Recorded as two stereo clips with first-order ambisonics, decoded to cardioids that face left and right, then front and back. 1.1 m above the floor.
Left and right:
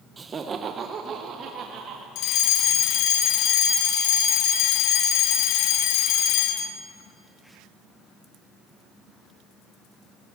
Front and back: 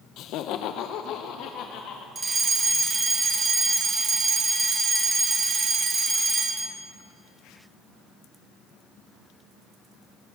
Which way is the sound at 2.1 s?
105° left.